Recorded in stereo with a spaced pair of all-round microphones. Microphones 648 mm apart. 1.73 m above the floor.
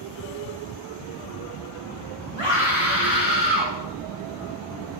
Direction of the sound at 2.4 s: 55° right (ahead or behind).